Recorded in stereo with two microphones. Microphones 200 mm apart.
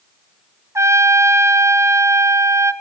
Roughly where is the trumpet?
Centre.